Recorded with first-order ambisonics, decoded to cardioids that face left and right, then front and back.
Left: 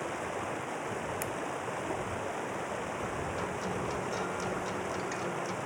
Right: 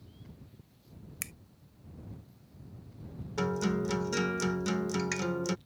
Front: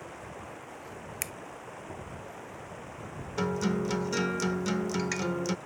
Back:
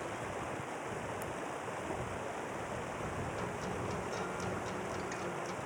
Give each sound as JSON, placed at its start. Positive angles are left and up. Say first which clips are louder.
{"t": 0.0, "sound": "running water", "louder": "left 24 dB, back 3 dB", "azimuth_deg": 100}
{"t": 1.2, "sound": "a finger snap", "louder": "left 7 dB, front 3 dB", "azimuth_deg": -15}
{"t": 3.4, "sound": "a guitar", "louder": "right 2 dB, front 8 dB", "azimuth_deg": -35}